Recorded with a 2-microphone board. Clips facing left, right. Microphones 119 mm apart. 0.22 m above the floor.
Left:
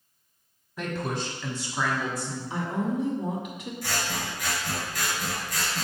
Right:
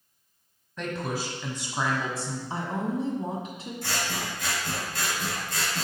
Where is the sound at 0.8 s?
5° left (ahead or behind), 1.1 m; by 2.4 s 35° right (ahead or behind), 1.5 m.